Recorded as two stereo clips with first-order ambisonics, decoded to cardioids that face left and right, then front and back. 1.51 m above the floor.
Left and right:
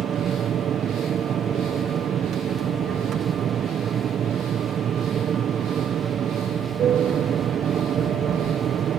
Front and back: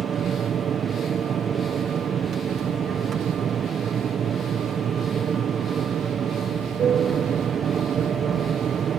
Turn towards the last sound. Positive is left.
turn(degrees=-130)